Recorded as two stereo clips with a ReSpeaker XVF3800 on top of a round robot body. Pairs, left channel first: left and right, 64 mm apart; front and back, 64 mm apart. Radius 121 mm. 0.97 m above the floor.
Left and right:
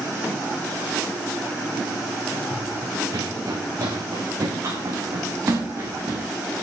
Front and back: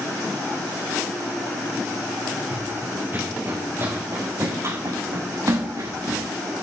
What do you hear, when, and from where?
2.5 s running footsteps: 115° right, 4.5 m; by 6.3 s 150° right, 6.5 m